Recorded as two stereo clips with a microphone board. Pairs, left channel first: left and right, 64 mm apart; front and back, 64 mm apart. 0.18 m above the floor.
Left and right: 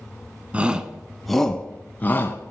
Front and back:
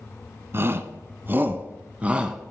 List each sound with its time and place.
0.5 s a shout: 150° right, 1.3 m; by 2.5 s 110° left, 1.3 m